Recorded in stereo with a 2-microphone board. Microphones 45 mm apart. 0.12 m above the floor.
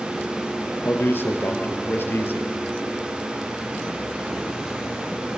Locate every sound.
0.8 s a man speaking: 55° left (ahead or behind), 2.5 m